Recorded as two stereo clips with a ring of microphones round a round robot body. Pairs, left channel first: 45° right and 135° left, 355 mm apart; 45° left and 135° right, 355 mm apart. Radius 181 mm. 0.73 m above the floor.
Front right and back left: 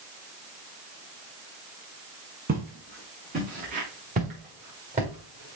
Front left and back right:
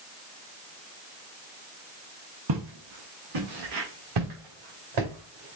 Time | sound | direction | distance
2.5 | footsteps | 160° right | 3 m